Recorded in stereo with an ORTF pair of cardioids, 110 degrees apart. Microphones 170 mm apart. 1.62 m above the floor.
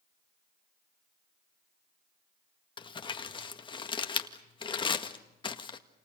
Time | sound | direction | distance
2.8 | crumpling | 30° left | 1.8 m